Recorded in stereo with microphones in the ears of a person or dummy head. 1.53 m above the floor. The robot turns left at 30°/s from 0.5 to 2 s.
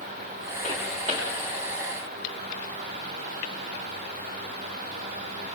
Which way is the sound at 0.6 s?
25° right (ahead or behind).